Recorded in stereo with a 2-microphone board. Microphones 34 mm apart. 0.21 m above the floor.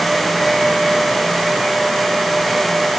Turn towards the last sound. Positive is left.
No sound to turn to.